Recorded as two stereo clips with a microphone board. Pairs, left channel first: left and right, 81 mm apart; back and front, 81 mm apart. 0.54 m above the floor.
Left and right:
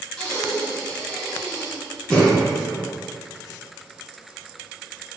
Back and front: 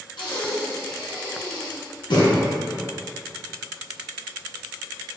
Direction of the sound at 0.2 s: 175° left.